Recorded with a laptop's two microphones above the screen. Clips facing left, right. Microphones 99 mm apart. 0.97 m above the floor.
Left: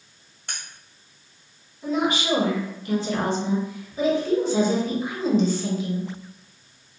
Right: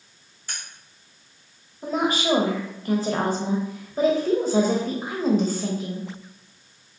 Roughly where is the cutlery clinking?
Left.